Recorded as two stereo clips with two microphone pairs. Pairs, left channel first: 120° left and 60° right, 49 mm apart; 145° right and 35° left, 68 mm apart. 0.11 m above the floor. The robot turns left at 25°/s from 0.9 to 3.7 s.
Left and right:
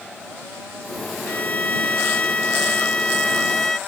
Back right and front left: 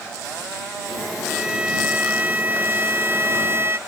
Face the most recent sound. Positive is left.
turn(degrees=45)